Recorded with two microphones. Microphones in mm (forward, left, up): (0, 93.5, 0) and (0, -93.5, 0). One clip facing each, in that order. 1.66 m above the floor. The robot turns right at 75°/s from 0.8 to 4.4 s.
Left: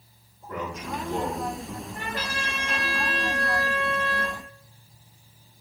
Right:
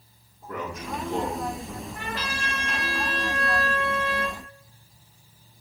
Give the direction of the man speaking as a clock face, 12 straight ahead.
3 o'clock.